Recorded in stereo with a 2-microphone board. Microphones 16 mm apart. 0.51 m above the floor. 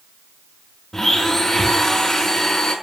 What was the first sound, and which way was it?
A blender, 25° left (ahead or behind).